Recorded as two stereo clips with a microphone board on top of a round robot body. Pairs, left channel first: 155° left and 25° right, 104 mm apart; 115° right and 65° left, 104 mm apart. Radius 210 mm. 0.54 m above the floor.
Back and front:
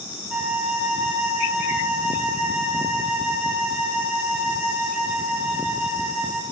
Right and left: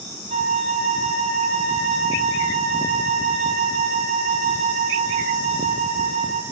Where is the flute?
60° left, 0.5 m.